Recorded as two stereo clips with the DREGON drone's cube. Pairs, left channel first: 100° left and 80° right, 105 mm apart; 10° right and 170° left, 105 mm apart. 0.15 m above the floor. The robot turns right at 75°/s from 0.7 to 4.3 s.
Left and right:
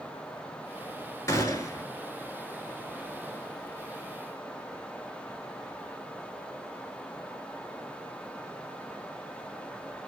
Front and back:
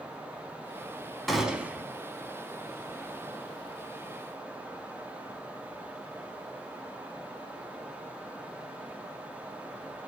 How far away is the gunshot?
About 0.5 m.